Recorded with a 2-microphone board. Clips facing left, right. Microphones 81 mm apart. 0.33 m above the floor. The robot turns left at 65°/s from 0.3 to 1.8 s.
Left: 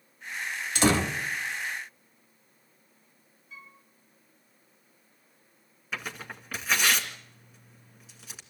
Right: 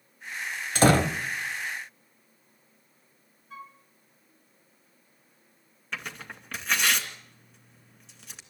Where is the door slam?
45° right (ahead or behind), 1.1 m; by 1.2 s 55° right (ahead or behind), 1.1 m.